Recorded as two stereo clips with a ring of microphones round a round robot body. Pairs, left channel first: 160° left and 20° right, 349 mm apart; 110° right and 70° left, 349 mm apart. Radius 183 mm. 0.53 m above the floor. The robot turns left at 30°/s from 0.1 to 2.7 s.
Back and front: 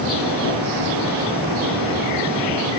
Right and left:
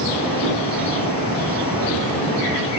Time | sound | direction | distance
0.4 | a drawer | 125° left | 4 m